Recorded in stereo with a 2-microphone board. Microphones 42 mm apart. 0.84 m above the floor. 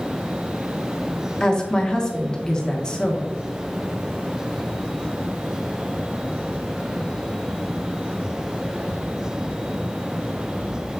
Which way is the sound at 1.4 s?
20° left (ahead or behind).